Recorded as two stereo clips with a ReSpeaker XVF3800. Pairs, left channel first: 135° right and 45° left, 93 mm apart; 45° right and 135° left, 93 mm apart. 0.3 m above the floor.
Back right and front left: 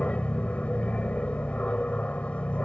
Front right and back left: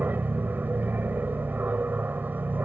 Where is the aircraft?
170° left.